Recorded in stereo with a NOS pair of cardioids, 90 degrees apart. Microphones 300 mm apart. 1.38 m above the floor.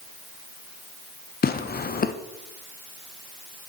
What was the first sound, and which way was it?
Tearing paper, 30° left.